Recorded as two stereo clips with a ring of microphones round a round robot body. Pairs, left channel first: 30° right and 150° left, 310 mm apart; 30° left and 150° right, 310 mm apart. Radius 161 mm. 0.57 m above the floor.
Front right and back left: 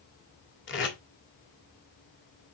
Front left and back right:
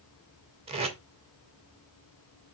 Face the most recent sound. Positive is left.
turn(degrees=-80)